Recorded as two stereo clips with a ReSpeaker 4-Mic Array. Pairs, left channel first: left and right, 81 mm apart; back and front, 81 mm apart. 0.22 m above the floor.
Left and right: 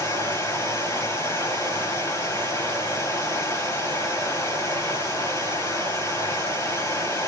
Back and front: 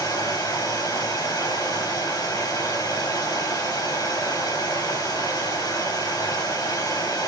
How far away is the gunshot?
I don't hear a gunshot.